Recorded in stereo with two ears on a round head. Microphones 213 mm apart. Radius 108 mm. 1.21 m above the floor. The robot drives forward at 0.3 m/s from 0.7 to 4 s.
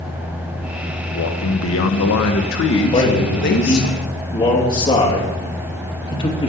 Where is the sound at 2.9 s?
25° left (ahead or behind), 2.0 m; by 6.5 s 20° left (ahead or behind), 2.5 m.